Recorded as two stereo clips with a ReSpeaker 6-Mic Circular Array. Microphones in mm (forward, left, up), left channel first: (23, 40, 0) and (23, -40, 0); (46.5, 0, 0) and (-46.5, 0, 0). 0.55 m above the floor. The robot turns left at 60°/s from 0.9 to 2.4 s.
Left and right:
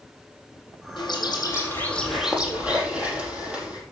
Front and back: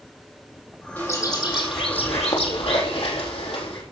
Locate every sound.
1.0 s a bird: 70° left, 4 m; by 3.8 s 15° right, 4 m